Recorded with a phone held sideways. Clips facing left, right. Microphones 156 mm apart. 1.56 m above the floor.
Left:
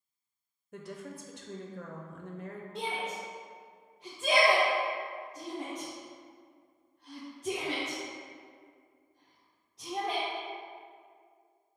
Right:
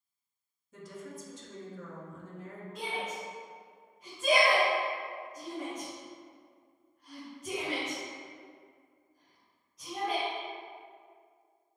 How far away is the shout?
About 0.8 m.